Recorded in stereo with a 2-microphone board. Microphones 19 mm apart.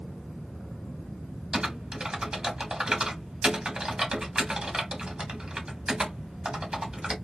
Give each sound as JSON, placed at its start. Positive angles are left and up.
{"t": 1.5, "sound": "typing on a keyboard", "side_deg": -45, "distance_m": 1.1}